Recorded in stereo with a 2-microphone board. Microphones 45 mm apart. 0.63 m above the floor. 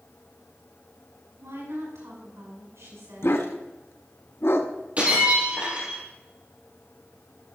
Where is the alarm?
No alarm in this recording.